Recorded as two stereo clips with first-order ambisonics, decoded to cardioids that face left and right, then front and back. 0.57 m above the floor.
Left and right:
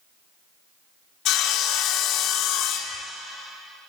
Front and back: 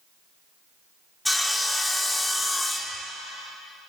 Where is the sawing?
80° left, 0.9 m.